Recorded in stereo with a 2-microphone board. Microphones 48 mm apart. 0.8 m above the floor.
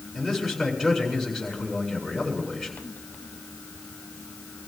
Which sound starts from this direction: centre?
A man speaking, at 0.1 s.